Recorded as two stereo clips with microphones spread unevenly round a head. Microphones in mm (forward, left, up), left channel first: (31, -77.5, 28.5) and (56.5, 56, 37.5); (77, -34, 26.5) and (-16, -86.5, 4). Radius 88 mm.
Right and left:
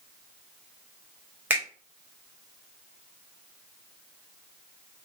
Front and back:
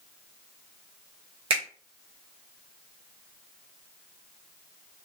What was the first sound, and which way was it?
A finger snap, 160° left.